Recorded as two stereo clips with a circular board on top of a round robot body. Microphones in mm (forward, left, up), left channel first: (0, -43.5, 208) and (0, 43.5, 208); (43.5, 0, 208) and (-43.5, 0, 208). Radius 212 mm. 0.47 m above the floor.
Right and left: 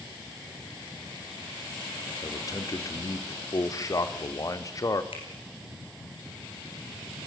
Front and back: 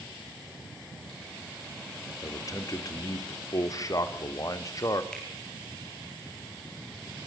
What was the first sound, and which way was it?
A man speaking, 45° right.